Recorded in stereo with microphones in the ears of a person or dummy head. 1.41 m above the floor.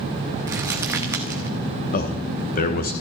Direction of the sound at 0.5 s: 15° right (ahead or behind).